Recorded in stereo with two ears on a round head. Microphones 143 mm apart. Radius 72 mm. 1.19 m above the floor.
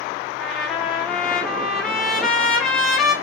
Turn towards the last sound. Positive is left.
turn(degrees=5)  # may be behind; listen again after turning